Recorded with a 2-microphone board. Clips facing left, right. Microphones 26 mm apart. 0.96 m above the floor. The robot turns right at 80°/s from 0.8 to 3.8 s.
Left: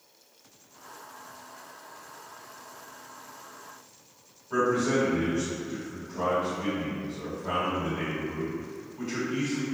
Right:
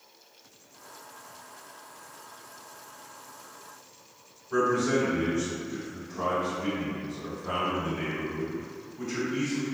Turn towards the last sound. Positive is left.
turn(degrees=50)  # may be behind; listen again after turning